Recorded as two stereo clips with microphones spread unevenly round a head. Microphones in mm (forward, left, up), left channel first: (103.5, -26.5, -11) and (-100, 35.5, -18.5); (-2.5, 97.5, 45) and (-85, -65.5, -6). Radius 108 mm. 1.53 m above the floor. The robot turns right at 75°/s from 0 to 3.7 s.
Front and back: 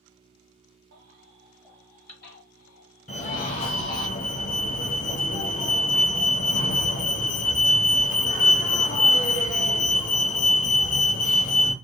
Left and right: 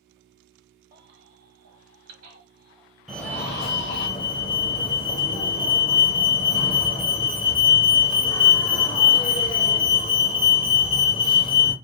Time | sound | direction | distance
0.9 | a baby crying | 160° right | 0.9 m
3.1 | a fire alarm | 55° right | 0.7 m